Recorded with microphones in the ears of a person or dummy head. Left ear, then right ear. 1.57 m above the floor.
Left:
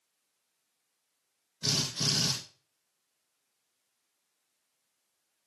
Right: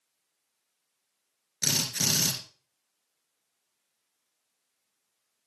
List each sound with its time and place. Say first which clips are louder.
1.6 s a drill: right 2 dB; 50° right (ahead or behind), 2.5 m